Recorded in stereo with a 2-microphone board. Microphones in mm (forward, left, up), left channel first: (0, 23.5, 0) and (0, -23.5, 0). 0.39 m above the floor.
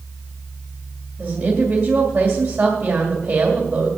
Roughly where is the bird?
No bird in this recording.